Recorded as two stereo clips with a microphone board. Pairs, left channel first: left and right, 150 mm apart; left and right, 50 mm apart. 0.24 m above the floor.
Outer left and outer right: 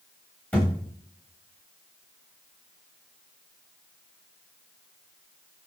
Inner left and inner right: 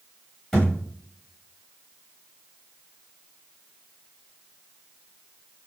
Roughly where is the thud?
Centre.